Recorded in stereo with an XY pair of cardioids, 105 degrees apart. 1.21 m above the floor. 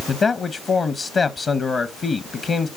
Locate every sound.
0.1 s a man speaking: 40° left, 1.0 m